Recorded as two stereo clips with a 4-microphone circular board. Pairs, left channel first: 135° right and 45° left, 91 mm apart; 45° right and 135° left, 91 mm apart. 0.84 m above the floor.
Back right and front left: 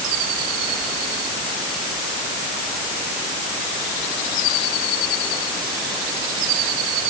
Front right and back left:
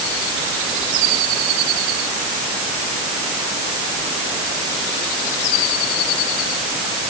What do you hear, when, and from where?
Only background noise.